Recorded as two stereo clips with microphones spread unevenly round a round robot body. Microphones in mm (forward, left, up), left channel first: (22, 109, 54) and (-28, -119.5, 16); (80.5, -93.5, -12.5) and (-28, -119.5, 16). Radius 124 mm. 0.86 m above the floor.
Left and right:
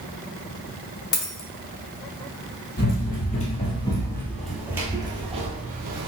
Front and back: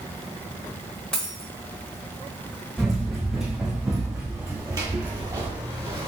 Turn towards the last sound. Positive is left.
turn(degrees=-150)